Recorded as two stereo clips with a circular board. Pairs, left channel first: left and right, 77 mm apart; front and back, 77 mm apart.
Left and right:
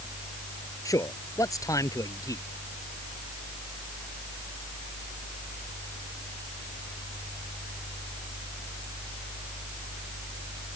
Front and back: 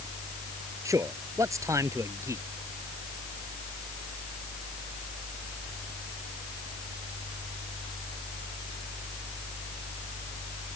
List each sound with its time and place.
0.8 s a man speaking: 135° left